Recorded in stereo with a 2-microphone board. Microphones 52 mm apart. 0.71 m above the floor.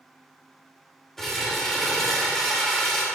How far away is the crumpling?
About 1.1 m.